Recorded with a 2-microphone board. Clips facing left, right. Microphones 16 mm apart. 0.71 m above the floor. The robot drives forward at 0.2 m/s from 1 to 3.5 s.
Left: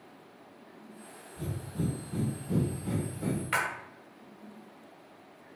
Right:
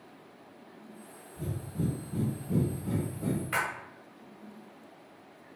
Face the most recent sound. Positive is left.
turn(degrees=25)  # may be behind; listen again after turning